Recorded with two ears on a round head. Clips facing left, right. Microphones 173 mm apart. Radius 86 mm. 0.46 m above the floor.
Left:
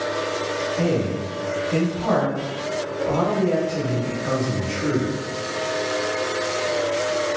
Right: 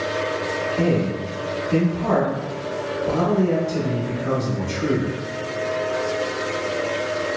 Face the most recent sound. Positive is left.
turn(degrees=-35)  # may be behind; listen again after turning